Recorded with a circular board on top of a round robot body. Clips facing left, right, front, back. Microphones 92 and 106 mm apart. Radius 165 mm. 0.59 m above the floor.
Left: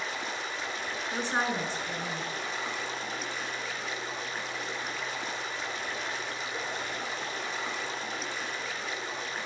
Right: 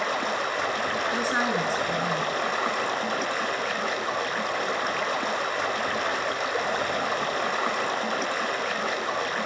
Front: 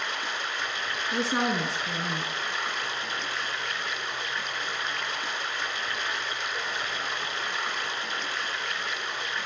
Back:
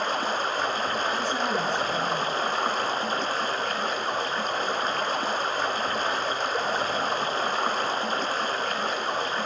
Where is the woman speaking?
10° right, 10 m.